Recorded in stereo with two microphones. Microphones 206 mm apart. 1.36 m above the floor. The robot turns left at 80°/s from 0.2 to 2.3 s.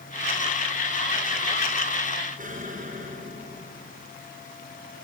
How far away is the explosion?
About 5 m.